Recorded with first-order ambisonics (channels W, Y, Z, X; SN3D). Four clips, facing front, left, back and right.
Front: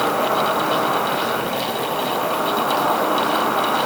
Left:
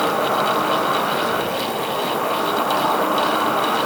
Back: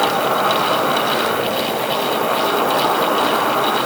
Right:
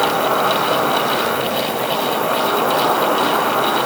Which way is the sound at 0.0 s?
110° right.